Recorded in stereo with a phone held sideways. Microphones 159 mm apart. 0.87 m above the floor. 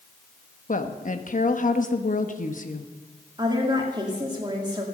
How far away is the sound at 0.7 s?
About 1.3 m.